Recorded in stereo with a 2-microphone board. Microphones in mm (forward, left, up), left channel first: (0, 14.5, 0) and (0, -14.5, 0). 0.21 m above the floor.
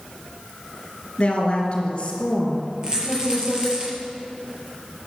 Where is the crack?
No crack in this recording.